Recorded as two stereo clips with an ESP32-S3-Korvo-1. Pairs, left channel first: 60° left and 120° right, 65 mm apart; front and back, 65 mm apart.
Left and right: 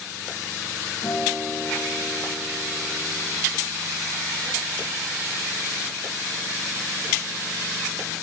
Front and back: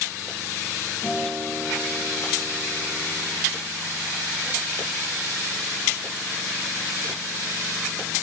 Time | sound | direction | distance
1.0 | a guitar | 95° left | 7.5 m